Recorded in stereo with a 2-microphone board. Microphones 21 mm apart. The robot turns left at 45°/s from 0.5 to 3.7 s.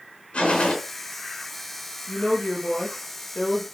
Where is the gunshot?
65° left (ahead or behind), 3.5 m; by 0.8 s 70° left (ahead or behind), 3.5 m.